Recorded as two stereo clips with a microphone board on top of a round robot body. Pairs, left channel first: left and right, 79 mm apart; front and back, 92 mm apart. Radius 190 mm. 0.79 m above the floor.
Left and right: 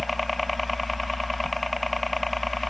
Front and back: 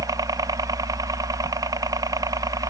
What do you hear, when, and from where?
0.0 s a helicopter: straight behind